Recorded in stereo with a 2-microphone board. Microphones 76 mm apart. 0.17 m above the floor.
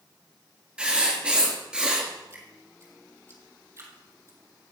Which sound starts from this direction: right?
Dripping, at 2.3 s.